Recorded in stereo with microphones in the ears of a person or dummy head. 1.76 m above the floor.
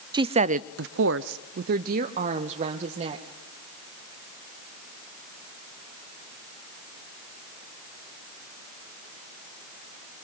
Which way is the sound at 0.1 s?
25° right (ahead or behind).